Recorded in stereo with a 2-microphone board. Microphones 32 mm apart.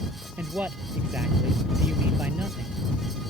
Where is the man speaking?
80° right.